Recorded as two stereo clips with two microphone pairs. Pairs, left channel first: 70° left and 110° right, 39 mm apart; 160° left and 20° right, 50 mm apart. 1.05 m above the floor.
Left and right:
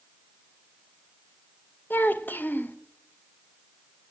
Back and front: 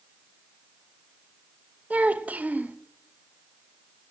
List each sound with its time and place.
1.9 s a child speaking: 35° left, 0.9 m